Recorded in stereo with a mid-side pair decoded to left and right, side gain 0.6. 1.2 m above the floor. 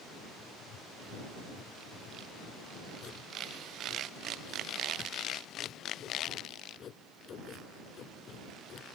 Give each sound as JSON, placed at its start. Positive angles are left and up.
{"t": 0.4, "sound": "writing", "azimuth_deg": 45}